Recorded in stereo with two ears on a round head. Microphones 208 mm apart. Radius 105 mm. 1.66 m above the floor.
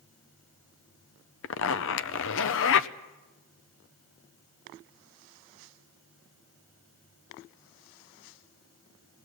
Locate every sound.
1.4 s a zipper: 55° left (ahead or behind), 0.8 m